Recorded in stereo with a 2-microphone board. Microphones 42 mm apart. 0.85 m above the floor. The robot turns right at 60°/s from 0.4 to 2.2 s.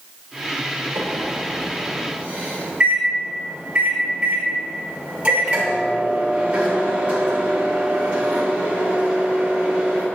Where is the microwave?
105° right, 2.5 m; by 10.1 s 30° right, 2.5 m.